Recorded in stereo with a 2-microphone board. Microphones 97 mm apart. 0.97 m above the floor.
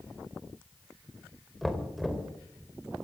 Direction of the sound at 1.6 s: Centre (ahead or behind).